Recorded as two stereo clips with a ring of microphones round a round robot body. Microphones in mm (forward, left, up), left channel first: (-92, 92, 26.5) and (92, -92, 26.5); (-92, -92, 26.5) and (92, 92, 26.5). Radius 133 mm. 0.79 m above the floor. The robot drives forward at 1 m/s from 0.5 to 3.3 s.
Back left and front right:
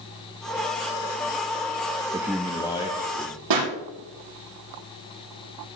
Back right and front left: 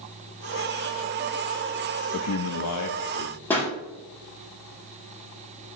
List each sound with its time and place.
2.1 s a man speaking: 115° right, 0.6 m; by 3.4 s 160° right, 1.5 m
3.5 s a pop: 50° right, 6.5 m